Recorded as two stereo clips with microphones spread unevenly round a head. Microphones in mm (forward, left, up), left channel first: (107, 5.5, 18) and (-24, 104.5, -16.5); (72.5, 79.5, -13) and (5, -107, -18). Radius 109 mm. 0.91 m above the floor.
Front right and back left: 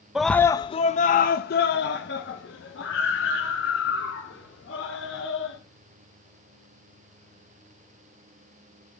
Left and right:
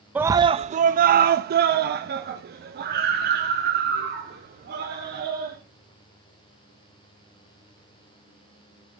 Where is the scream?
Straight behind, 0.5 m; by 5.6 s 70° right, 3.5 m.